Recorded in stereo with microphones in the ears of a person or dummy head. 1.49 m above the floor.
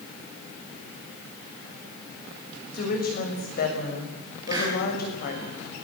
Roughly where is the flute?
No flute in this recording.